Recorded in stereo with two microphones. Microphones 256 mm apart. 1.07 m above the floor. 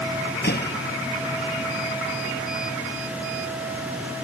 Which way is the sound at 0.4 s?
40° left (ahead or behind).